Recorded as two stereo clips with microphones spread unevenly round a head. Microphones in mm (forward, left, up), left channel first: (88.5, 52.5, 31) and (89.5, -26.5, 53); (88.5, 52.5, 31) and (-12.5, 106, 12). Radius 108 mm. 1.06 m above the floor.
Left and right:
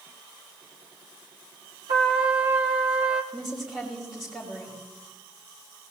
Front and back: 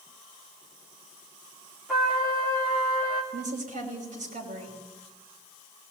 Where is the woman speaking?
175° right, 5.5 m.